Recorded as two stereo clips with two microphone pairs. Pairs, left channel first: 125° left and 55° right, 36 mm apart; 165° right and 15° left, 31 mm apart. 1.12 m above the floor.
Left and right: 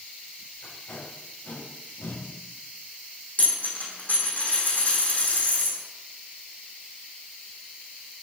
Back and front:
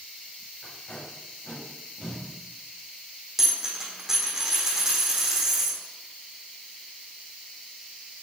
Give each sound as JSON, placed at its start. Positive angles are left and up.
{"t": 0.6, "sound": "tape being pulled", "azimuth_deg": 130, "distance_m": 5.0}
{"t": 3.4, "sound": "a dropped coin", "azimuth_deg": 90, "distance_m": 4.5}